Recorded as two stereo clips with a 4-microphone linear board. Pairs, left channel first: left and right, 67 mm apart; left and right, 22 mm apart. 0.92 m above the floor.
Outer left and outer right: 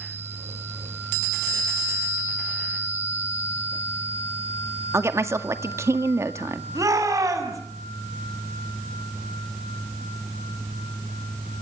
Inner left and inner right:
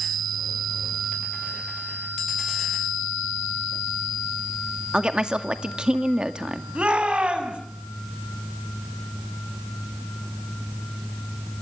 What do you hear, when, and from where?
4.9 s a woman speaking: 45° right (ahead or behind), 1.9 m
6.8 s a shout: 60° right (ahead or behind), 7 m